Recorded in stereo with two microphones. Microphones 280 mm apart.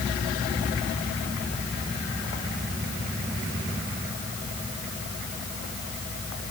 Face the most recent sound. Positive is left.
No sound to turn to.